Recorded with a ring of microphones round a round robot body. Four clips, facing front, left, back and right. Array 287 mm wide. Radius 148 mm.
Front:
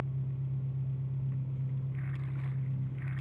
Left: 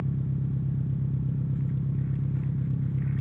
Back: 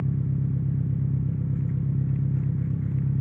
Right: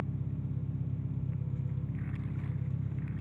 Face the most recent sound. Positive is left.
turn(degrees=155)